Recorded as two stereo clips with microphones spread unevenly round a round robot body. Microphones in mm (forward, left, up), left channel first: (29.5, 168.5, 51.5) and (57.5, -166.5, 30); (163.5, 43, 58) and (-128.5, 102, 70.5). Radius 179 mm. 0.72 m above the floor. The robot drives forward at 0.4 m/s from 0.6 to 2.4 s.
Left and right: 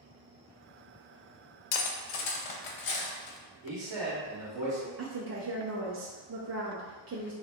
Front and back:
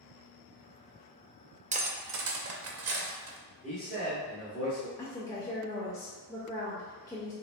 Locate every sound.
1.7 s cutlery clinking: 100° left, 0.5 m; by 3.4 s 125° left, 0.6 m
3.6 s a man speaking: 100° right, 1.2 m
5.0 s a woman speaking: 80° right, 0.5 m